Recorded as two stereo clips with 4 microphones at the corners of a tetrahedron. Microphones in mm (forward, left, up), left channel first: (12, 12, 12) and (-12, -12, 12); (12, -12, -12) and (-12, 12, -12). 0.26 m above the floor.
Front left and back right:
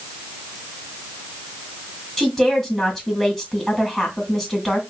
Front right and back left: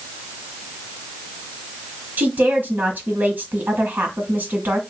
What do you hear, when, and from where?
2.2 s a woman speaking: 135° left, 2.5 m